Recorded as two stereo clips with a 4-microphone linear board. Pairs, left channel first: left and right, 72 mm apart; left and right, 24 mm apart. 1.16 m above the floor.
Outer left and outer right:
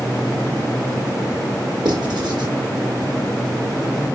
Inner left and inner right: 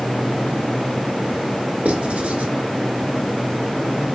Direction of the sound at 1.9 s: 75° right (ahead or behind).